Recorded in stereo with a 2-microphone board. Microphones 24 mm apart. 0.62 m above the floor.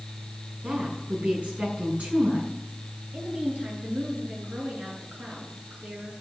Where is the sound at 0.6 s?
70° right (ahead or behind), 7.5 m.